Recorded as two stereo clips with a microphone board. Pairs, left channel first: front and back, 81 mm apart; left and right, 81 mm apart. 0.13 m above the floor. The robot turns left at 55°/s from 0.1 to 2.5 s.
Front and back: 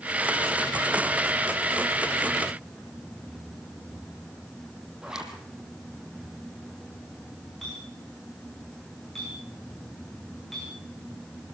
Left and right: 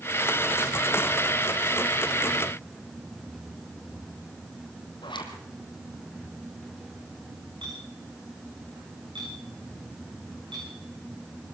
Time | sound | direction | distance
5.0 | a zipper | 100° left | 2.5 m
7.6 | a clink | 85° right | 7.5 m